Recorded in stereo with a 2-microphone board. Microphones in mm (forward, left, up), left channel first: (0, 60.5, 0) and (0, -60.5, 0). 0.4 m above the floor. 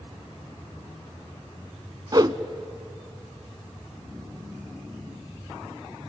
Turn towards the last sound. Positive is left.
turn(degrees=-35)  # may be behind; listen again after turning